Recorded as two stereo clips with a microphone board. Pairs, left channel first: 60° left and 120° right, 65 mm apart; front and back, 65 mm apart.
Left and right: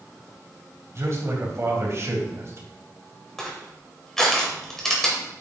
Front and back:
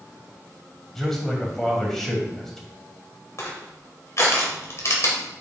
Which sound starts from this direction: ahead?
Crushing, at 3.4 s.